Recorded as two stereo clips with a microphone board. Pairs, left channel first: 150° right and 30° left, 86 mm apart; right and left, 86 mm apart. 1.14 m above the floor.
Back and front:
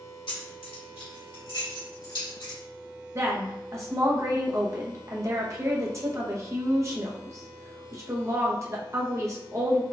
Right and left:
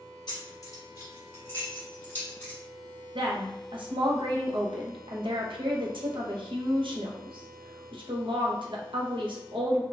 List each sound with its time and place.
0.3 s keys jangling: 130° right, 1.0 m; by 2.6 s 160° right, 2.5 m
3.1 s a woman speaking: 85° left, 0.7 m